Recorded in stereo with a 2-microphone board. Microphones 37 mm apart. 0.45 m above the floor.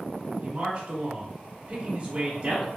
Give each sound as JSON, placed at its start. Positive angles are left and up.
{"t": 0.4, "sound": "a man speaking", "side_deg": -25, "distance_m": 0.7}